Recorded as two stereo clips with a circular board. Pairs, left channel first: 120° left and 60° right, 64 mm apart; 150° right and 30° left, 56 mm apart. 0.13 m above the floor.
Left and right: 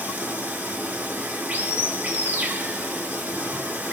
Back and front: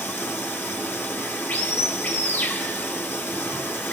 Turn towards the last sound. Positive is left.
turn(degrees=-110)